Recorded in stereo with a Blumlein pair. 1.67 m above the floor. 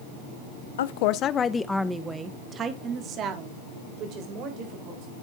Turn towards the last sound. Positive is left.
turn(degrees=-45)